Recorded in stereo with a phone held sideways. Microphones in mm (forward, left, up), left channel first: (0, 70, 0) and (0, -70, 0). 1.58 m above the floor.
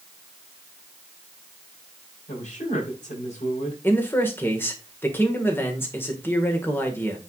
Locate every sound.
2.3 s a man speaking: 65° left (ahead or behind), 5 m
3.8 s a man speaking: 15° left (ahead or behind), 1.7 m